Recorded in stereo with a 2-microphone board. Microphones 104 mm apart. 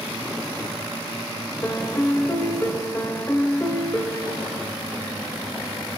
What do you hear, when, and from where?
1.6 s a piano: 25° left (ahead or behind), 1.5 m